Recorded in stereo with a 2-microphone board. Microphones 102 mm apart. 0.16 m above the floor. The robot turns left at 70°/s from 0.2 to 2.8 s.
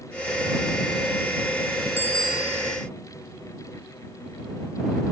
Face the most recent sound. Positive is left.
turn(degrees=-35)